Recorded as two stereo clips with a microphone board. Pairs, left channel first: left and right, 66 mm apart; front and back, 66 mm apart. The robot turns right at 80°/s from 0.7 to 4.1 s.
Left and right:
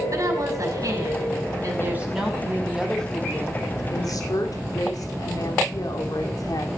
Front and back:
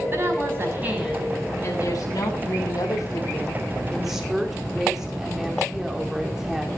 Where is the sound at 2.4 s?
40° right, 2.5 m; by 6.7 s 95° left, 2.5 m.